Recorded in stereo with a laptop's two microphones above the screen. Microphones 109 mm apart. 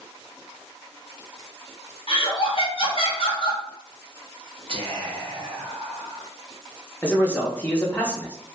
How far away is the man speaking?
About 1.0 m.